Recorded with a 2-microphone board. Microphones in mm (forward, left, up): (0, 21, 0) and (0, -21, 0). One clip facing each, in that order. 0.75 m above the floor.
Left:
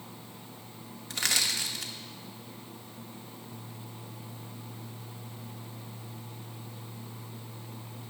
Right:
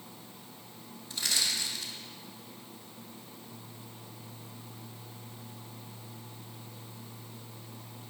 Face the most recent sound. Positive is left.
turn(degrees=75)  # may be behind; listen again after turning